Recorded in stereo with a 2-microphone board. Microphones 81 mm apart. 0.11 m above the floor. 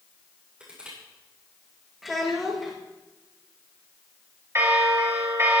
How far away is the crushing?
About 8.5 m.